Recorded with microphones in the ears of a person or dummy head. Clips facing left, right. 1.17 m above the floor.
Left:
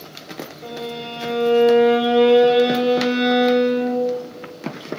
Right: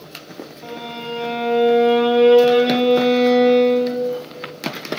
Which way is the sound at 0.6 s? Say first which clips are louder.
Left 1 dB; 15° left (ahead or behind).